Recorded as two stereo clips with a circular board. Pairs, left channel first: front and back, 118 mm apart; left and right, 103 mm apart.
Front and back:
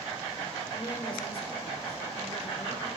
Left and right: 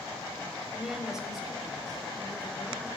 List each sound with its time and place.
0.7 s a woman speaking: 10° right, 1.1 m; by 2.9 s straight ahead, 2.5 m